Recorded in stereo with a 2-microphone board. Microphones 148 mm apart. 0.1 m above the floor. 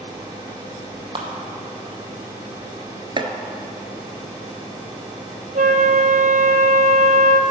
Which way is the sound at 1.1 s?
35° right (ahead or behind).